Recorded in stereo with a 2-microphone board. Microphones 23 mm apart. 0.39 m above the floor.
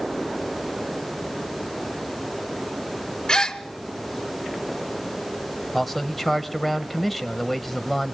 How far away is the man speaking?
About 1.5 m.